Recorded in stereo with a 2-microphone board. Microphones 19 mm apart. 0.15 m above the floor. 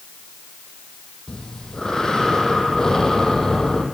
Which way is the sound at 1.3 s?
35° left (ahead or behind).